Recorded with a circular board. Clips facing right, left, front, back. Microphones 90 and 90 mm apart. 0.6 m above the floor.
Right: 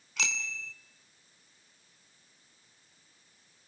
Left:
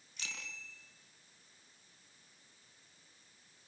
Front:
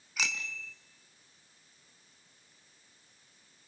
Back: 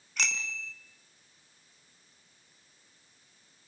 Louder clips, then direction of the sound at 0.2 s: Right 11 dB, back 2 dB; 85° right.